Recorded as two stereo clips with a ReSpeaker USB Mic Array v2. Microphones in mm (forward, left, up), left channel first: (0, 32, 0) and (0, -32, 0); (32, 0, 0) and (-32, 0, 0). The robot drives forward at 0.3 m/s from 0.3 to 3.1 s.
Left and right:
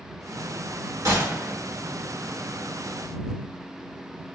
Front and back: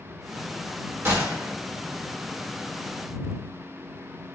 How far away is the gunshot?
About 1.5 m.